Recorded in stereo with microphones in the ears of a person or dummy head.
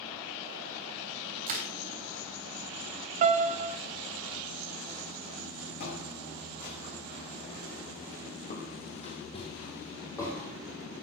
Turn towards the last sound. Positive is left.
turn(degrees=10)  # may be behind; listen again after turning